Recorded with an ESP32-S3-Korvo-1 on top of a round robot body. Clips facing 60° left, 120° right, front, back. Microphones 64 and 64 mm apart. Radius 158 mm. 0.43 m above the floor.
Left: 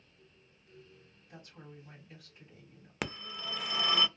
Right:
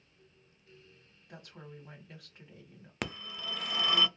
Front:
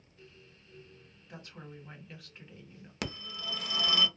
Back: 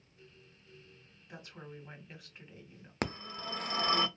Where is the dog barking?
I don't hear a dog barking.